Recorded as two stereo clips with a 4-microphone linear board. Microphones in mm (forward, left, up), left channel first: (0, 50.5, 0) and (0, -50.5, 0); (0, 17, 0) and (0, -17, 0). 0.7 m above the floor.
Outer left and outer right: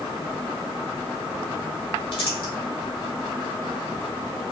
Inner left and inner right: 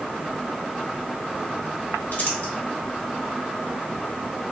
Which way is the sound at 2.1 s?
60° left (ahead or behind).